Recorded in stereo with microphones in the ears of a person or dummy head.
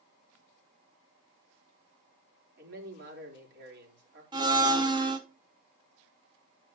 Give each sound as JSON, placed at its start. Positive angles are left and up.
{"t": 2.6, "sound": "a man speaking", "side_deg": -55, "distance_m": 4.0}
{"t": 4.3, "sound": "a blender", "side_deg": -25, "distance_m": 0.9}